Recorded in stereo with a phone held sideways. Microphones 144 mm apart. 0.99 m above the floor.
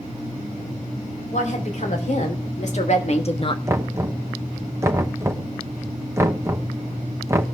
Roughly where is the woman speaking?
Left.